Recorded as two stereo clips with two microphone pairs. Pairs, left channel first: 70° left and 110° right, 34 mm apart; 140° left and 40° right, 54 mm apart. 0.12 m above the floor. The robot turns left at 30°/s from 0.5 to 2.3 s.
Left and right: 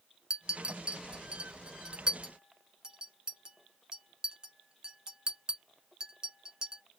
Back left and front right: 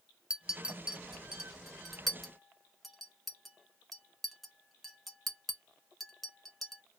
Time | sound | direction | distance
0.3 | a clink | 75° right | 0.7 m